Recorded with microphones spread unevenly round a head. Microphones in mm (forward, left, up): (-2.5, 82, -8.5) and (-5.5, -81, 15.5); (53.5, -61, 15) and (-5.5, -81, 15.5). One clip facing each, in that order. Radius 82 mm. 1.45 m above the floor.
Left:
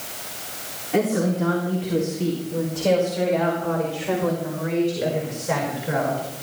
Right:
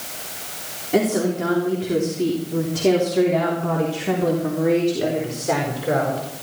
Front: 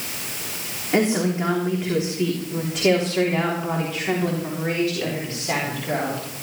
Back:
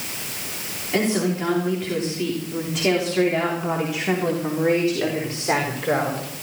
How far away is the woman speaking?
About 3.5 m.